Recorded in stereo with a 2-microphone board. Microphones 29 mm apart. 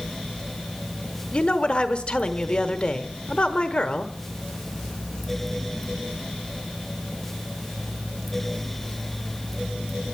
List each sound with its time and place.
1.3 s a woman speaking: 35° left (ahead or behind), 1.1 m